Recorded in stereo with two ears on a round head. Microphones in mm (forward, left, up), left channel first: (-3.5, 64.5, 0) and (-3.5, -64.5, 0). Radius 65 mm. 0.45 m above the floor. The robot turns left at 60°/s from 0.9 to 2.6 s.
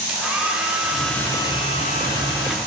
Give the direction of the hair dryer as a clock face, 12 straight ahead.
6 o'clock.